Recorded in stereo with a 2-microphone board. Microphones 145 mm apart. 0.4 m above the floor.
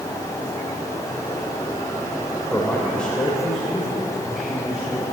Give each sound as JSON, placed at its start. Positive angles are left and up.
{"t": 2.5, "sound": "a man speaking", "side_deg": 10, "distance_m": 1.8}